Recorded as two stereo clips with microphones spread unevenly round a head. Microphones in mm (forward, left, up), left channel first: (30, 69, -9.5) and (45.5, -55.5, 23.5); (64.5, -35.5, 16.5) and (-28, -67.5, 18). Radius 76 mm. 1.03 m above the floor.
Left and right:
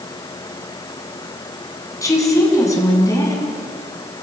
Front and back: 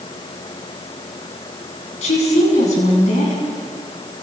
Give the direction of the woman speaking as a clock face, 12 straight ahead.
11 o'clock.